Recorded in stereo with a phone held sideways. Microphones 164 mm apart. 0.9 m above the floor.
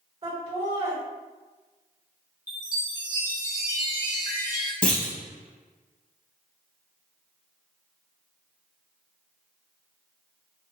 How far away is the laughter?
About 1.7 m.